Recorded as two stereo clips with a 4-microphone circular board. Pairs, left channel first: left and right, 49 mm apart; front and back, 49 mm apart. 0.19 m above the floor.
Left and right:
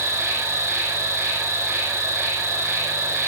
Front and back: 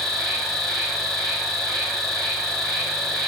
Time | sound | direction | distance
0.0 | an insect | 85° right | 4 m